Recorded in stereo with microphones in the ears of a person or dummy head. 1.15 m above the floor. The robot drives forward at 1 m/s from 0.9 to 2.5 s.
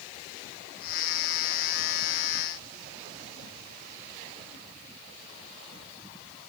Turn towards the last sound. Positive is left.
No sound to turn to.